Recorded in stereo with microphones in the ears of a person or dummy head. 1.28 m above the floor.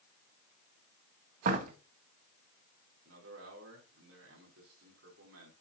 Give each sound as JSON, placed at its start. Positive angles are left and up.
{"t": 1.4, "sound": "a door slam", "side_deg": -50, "distance_m": 1.2}
{"t": 3.0, "sound": "a man speaking", "side_deg": -85, "distance_m": 4.5}